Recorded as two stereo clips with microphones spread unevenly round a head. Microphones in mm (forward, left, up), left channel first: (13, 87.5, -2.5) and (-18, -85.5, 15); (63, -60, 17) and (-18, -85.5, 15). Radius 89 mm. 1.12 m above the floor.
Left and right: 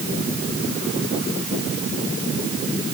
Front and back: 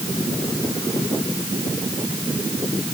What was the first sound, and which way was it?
Only background noise.